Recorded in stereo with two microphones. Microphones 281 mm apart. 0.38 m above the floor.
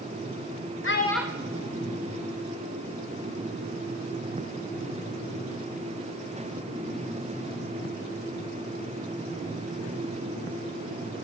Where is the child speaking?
50° left (ahead or behind), 0.6 m; by 2.9 s 65° right (ahead or behind), 2.5 m.